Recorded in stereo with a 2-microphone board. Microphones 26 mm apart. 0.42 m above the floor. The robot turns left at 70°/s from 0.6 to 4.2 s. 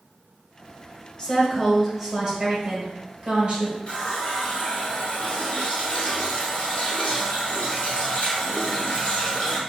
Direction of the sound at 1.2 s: 35° left.